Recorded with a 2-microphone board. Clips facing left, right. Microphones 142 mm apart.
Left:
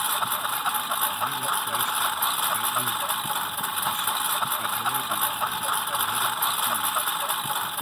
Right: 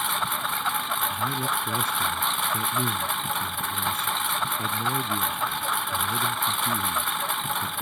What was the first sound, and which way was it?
A lawn mower, 5° left (ahead or behind).